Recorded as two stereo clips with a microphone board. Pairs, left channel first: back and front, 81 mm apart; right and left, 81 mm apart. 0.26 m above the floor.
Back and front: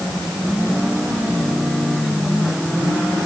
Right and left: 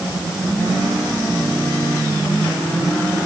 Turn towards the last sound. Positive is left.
No sound to turn to.